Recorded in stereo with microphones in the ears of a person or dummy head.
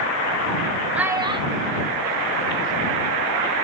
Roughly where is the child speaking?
Centre.